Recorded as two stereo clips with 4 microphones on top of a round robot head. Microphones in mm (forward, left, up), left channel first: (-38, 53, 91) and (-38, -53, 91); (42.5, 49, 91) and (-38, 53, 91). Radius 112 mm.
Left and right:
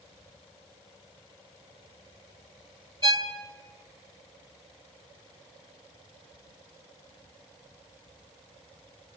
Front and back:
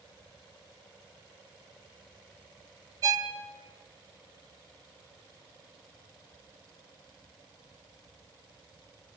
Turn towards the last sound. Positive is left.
turn(degrees=-135)